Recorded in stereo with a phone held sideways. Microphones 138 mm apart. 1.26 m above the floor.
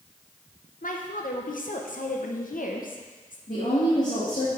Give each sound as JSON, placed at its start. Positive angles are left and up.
{"t": 0.8, "sound": "a woman speaking", "side_deg": 75, "distance_m": 0.9}
{"t": 3.5, "sound": "a woman speaking", "side_deg": 65, "distance_m": 2.0}